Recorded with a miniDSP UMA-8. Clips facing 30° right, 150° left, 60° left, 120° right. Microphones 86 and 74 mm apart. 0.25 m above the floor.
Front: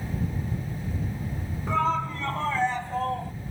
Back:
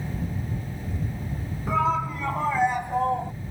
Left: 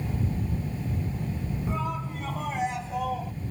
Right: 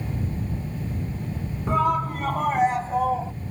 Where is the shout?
125° right; by 3.3 s 160° right.